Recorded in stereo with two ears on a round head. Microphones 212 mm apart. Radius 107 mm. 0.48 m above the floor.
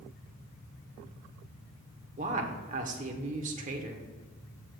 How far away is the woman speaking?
About 1.5 m.